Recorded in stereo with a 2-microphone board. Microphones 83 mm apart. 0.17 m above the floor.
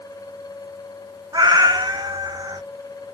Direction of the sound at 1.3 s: 55° right (ahead or behind).